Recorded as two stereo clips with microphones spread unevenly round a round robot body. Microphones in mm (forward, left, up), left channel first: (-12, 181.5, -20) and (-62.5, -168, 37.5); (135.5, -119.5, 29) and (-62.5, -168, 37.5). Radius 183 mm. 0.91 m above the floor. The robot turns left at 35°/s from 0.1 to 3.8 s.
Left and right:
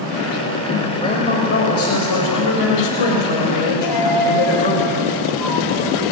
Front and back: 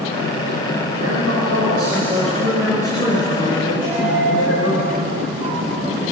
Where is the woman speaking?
160° left, 4.5 m; by 4.8 s 60° left, 4.5 m.